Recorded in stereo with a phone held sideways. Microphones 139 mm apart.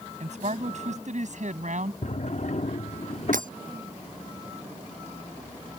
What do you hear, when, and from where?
0.2 s a man speaking: 60° right (ahead or behind); by 1.9 s 65° right (ahead or behind)
2.0 s a drawer: 55° left (ahead or behind)
3.3 s breaking glass: 75° right (ahead or behind)